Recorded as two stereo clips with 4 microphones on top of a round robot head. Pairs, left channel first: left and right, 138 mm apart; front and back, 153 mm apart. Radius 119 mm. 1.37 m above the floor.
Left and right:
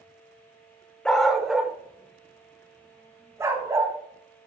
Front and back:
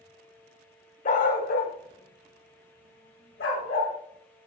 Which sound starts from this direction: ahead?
A dog barking, at 1.1 s.